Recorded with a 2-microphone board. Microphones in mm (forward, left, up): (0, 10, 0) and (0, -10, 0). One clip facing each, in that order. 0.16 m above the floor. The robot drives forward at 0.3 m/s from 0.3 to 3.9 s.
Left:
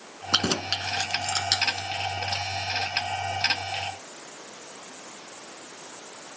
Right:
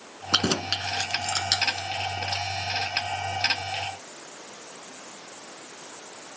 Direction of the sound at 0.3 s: 5° left (ahead or behind).